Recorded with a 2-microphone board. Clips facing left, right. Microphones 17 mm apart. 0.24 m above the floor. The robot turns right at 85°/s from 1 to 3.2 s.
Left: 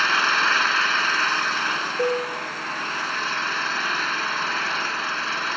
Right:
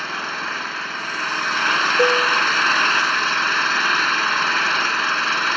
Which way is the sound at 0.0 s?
145° left.